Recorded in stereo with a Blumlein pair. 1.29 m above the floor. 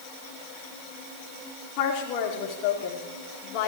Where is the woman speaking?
40° left, 3 m.